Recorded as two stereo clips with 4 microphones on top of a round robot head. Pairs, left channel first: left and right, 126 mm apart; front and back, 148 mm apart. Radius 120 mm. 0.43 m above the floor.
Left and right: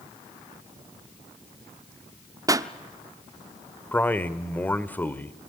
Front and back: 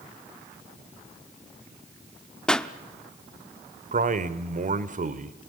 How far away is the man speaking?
About 1.4 m.